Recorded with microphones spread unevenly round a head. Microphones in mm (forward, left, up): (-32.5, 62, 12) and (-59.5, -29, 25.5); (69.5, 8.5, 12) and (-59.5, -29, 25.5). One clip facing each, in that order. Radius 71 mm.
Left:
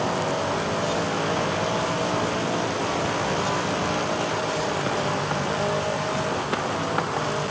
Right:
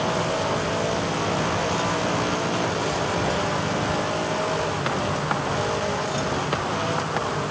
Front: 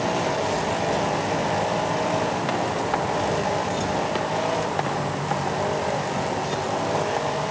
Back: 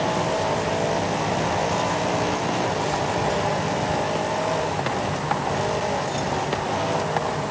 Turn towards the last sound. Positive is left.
No sound to turn to.